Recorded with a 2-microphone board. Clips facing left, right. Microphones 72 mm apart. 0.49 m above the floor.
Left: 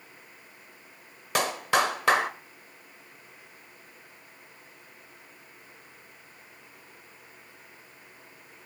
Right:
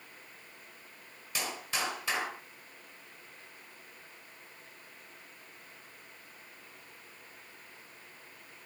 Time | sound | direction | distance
1.4 | a clap | 65° left (ahead or behind) | 1.5 m